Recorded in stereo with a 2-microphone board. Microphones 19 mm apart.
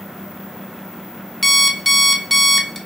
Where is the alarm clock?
10° left (ahead or behind), 0.5 m.